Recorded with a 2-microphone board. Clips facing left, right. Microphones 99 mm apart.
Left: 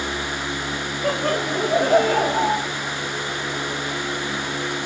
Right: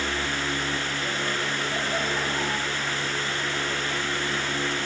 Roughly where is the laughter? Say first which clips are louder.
Left 12 dB; left.